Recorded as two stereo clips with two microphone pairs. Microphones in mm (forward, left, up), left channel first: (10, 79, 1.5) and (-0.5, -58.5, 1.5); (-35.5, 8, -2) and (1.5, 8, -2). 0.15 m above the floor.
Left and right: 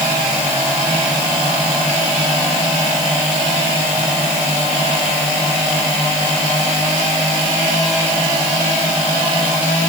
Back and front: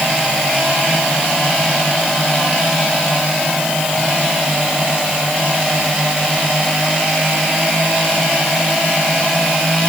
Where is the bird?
No bird in this recording.